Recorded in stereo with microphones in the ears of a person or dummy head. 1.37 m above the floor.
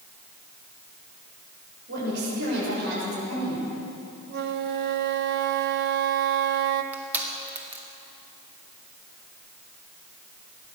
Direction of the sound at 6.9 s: 10° right (ahead or behind).